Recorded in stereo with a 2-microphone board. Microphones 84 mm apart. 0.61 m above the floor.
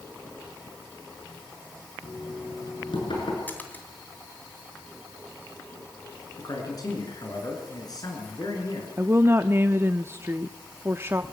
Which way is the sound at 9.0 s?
30° right (ahead or behind).